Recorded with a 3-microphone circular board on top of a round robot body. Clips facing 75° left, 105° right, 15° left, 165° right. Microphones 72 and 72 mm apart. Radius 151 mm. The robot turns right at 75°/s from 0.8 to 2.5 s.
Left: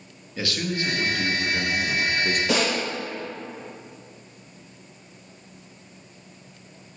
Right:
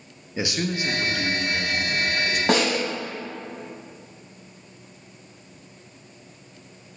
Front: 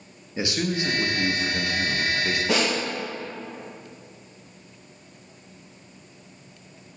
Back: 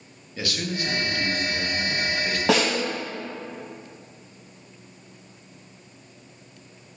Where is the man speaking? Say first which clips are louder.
Right 1 dB, front 3 dB; 45° right, 0.9 m; by 2.4 s 75° left, 0.9 m.